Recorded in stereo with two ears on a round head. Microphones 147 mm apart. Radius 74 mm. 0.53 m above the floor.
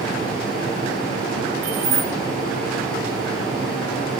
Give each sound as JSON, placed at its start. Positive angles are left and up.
{"t": 1.6, "sound": "keys jangling", "side_deg": -80, "distance_m": 5.5}